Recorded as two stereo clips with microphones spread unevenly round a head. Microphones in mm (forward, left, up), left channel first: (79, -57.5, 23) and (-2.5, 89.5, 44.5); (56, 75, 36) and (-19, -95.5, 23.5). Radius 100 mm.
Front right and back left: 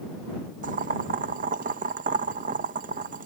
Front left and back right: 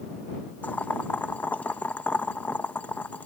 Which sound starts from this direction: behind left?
Boiling, at 0.6 s.